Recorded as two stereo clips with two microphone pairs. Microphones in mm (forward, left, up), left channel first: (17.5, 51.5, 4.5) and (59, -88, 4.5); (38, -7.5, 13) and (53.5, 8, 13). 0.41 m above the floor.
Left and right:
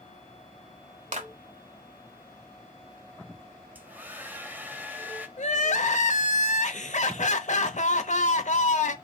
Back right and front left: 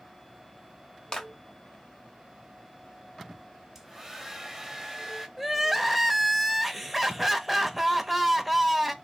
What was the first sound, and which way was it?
A clap, 95° right.